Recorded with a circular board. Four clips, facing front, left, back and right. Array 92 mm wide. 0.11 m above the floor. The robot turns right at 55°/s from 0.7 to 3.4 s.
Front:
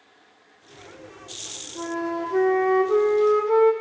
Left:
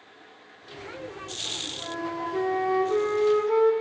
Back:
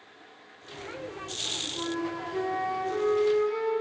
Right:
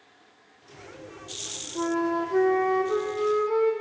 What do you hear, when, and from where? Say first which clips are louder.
1.8 s a flute: right 7 dB, front 5 dB; 75° right, 1.4 m; by 3.7 s 15° left, 1.4 m